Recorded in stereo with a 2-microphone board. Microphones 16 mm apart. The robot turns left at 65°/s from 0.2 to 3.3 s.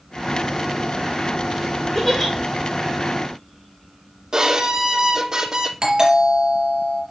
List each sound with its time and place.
1.9 s a giggle: 15° left (ahead or behind), 4.5 m; by 2.3 s 10° right (ahead or behind), 4.5 m
4.3 s a violin: 45° right (ahead or behind), 0.8 m
5.8 s a doorbell: 60° right (ahead or behind), 4 m